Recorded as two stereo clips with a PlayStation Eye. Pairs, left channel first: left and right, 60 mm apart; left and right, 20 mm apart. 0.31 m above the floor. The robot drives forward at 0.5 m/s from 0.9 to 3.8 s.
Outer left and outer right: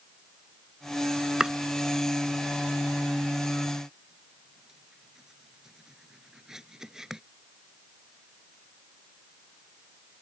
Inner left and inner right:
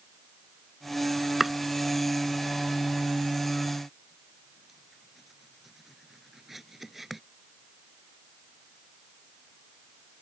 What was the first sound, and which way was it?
Chopping, 10° right (ahead or behind).